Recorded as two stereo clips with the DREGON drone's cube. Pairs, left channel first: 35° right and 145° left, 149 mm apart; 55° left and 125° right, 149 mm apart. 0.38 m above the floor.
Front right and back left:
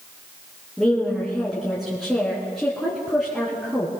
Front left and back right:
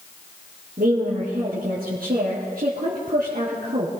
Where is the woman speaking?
125° right, 3 m.